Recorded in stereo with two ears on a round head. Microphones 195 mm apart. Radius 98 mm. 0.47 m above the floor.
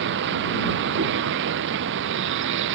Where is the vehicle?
55° right (ahead or behind); by 2.8 s 60° right (ahead or behind).